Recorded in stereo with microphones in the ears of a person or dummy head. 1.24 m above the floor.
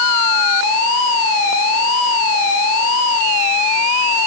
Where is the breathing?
No breathing in this recording.